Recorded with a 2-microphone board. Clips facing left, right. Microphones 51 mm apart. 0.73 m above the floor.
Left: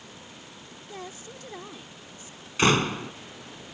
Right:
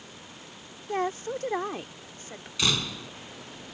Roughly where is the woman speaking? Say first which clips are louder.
Right 13 dB; right.